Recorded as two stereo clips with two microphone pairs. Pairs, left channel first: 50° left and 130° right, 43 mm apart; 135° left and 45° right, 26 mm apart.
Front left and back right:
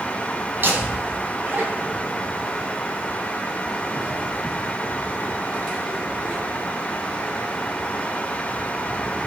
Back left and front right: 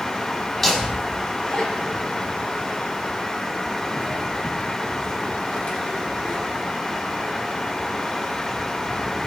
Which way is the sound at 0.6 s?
150° right.